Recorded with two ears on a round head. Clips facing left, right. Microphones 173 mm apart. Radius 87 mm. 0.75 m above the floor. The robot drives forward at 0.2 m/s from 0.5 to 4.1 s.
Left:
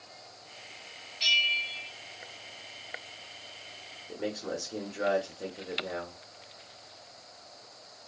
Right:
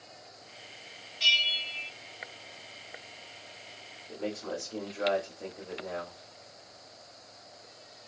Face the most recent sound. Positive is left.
turn(degrees=20)  # may be behind; listen again after turning